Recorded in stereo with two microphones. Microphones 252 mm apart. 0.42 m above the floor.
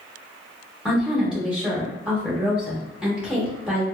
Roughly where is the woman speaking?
Centre.